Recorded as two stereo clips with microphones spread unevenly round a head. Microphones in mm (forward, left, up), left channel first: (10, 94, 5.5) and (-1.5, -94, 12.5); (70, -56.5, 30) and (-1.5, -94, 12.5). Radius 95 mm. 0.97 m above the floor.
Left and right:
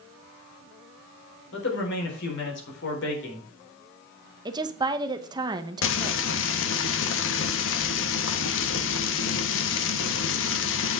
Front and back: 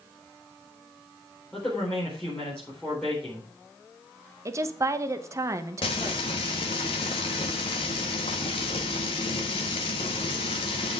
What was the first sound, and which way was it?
A man speaking, 115° left.